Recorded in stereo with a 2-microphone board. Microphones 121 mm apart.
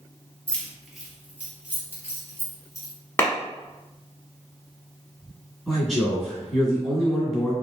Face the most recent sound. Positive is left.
turn(degrees=0)  # may be behind; listen again after turning